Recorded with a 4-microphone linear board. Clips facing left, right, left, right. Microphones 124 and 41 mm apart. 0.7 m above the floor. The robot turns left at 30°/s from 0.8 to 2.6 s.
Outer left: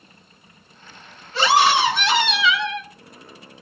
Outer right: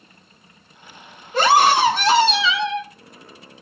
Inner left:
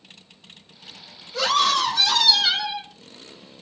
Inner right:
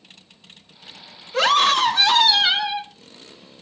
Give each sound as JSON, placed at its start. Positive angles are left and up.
{"t": 1.3, "sound": "a scream", "azimuth_deg": -105, "distance_m": 1.6}